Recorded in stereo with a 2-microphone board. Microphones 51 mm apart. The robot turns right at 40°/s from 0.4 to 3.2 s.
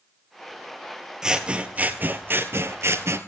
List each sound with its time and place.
1.2 s scissors: 170° right, 1.7 m; by 3.2 s 90° right, 1.7 m